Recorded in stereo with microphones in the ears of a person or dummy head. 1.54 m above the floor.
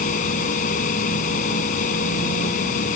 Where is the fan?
40° left (ahead or behind).